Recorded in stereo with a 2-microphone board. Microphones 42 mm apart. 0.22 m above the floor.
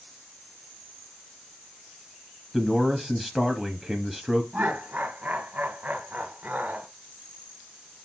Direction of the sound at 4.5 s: 35° right (ahead or behind).